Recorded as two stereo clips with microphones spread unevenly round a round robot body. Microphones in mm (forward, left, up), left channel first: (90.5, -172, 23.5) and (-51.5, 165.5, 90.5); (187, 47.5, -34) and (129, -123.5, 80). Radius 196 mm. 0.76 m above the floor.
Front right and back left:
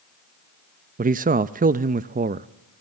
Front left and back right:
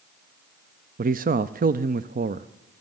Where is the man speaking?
175° left, 0.5 m.